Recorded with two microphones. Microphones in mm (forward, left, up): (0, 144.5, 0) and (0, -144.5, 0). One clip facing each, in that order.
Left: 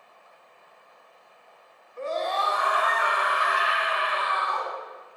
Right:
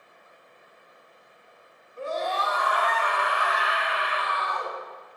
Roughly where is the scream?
Centre.